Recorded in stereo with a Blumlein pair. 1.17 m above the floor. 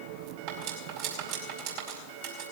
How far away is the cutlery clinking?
About 4.5 m.